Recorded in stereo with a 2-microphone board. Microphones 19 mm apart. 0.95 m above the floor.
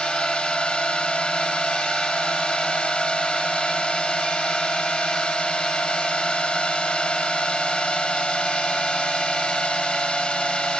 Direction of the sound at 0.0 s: 70° left (ahead or behind).